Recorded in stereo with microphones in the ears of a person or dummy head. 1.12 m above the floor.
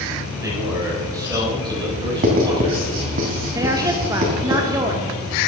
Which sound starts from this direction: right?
Writing, at 2.2 s.